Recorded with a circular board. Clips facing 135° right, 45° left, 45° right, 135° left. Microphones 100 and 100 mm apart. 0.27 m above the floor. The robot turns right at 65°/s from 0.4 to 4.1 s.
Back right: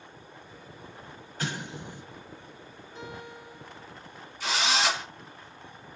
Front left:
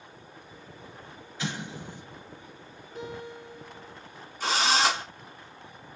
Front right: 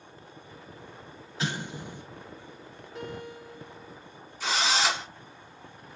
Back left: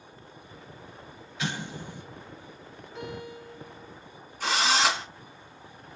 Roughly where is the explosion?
Right.